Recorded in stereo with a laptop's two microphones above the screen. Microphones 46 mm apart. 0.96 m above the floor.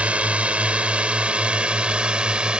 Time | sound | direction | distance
0.0 | a drone | 25° right (ahead or behind) | ?